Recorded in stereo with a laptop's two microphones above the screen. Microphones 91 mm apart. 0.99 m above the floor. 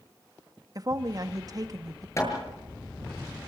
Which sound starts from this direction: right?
A woman speaking, at 0.8 s.